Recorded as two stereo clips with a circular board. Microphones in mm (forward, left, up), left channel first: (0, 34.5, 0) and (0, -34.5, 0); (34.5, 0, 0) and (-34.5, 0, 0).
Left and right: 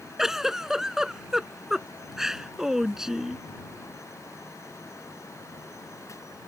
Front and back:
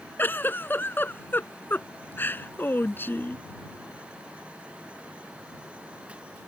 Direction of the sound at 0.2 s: 10° right.